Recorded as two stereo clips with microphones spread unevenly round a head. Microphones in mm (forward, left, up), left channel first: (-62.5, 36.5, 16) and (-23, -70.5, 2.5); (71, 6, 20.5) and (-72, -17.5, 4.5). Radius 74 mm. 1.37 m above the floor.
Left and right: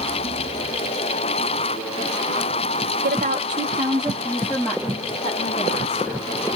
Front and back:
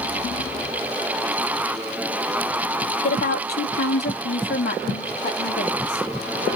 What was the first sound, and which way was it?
A woman speaking, 35° right.